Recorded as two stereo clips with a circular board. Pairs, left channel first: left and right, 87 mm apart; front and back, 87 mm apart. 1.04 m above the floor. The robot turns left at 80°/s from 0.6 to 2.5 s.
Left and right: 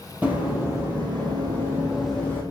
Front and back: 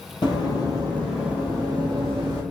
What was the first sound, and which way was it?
Running footsteps, 20° right.